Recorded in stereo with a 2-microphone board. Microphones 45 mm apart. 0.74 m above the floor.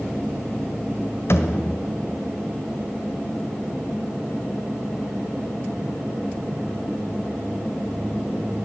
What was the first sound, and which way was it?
A thud, 60° left (ahead or behind).